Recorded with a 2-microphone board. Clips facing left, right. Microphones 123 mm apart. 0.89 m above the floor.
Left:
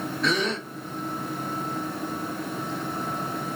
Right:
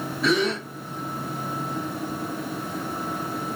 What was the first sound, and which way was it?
A gasp, 5° right (ahead or behind).